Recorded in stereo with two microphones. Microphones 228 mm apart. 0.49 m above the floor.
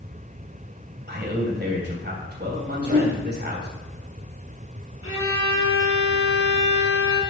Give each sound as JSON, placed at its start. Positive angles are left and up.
{"t": 1.1, "sound": "a man speaking", "side_deg": -50, "distance_m": 3.0}
{"t": 2.8, "sound": "a whoosh", "side_deg": -85, "distance_m": 4.0}
{"t": 5.0, "sound": "a violin", "side_deg": 75, "distance_m": 2.5}